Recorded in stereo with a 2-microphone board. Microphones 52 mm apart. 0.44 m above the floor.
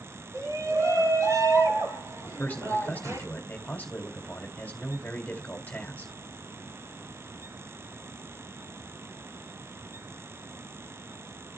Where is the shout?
80° right, 8 m; by 3.3 s 65° right (ahead or behind), 10 m.